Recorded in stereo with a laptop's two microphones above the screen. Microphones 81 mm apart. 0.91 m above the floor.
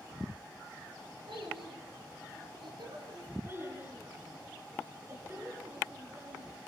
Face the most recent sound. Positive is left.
turn(degrees=-30)  # may be behind; listen again after turning